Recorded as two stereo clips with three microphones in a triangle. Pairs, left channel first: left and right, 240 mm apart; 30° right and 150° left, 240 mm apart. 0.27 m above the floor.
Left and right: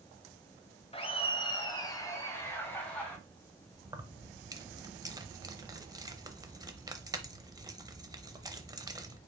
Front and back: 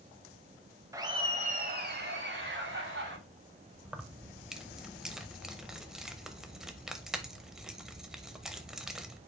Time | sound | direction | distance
0.9 | laughter | 95° left | 0.9 m
3.9 | keys jangling | 125° right | 0.7 m